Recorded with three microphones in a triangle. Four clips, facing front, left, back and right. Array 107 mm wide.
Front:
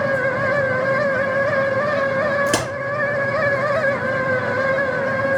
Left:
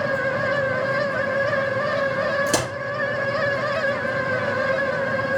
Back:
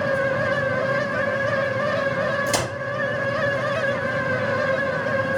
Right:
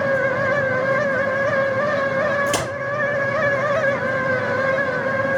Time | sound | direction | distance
2.5 | a crack | 30° left | 3 m